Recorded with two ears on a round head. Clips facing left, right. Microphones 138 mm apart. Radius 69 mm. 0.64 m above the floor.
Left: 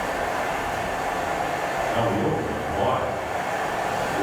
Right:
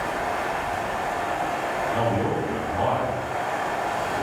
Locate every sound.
0.0 s running water: 40° left (ahead or behind), 1.2 m
1.9 s a man speaking: 25° left (ahead or behind), 0.8 m